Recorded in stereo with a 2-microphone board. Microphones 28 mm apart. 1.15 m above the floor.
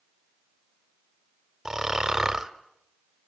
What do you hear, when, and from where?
1.6 s snoring: 20° right (ahead or behind), 1.4 m